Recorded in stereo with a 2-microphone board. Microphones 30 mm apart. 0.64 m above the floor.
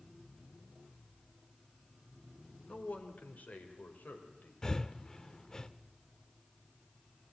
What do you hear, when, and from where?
2.7 s a man speaking: 60° left (ahead or behind), 2.5 m; by 4.5 s 75° left (ahead or behind), 3.5 m
4.6 s breathing: 25° left (ahead or behind), 0.6 m